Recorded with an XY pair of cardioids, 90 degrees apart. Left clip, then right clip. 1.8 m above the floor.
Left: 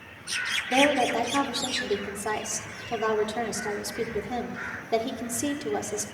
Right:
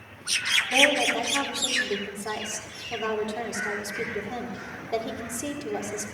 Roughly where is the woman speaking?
Ahead left.